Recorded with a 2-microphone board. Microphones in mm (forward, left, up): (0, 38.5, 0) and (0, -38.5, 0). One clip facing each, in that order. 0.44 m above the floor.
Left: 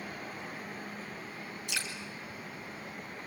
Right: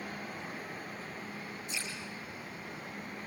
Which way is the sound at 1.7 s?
75° left (ahead or behind).